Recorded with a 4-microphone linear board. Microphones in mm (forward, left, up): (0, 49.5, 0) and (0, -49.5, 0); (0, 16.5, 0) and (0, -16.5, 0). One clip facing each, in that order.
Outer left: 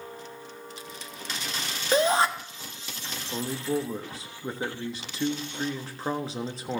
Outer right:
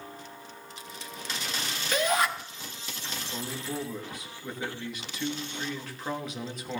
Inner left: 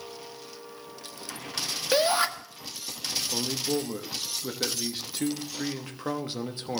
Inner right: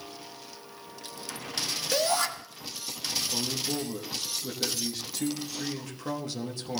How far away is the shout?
About 1.1 m.